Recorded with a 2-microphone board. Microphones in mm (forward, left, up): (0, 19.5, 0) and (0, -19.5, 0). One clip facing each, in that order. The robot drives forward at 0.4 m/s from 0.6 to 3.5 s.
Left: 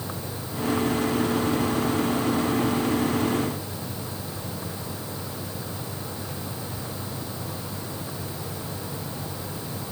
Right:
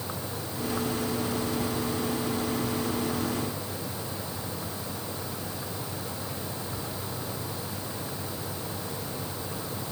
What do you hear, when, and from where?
Only background noise.